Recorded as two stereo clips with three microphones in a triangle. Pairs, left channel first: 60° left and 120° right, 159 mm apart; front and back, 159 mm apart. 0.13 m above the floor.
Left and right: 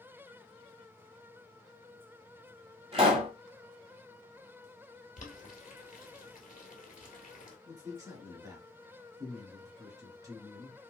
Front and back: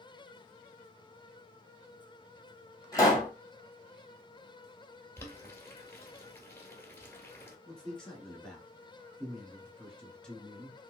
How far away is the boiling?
About 1.3 m.